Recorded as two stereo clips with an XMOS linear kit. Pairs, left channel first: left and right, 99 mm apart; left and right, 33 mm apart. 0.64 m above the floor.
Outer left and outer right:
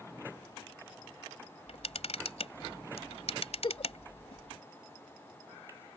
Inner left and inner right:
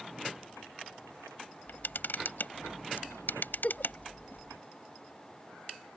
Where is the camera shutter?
85° left.